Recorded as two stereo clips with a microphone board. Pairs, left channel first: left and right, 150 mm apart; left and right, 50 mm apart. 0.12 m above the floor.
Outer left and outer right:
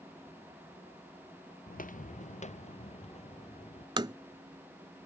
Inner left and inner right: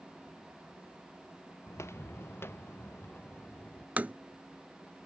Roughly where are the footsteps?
Left.